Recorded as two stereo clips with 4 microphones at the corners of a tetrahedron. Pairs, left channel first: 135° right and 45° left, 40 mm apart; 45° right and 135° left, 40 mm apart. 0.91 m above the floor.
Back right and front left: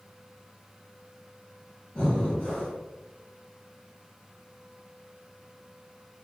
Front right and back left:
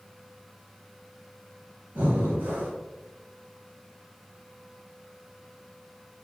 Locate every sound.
1.9 s breathing: 160° left, 1.8 m